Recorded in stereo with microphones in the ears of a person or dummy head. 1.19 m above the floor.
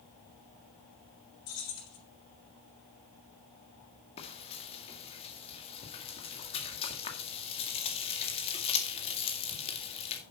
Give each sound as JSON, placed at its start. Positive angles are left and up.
{"t": 1.5, "sound": "keys jangling", "side_deg": 80, "distance_m": 3.5}
{"t": 4.2, "sound": "frying", "side_deg": 35, "distance_m": 2.0}